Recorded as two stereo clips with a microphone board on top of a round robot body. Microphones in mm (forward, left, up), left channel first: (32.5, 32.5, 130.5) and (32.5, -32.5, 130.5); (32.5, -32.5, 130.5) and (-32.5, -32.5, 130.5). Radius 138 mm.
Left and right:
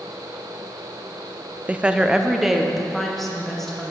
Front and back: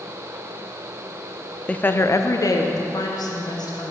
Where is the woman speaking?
50° right, 0.6 m; by 3.9 s 5° left, 1.6 m.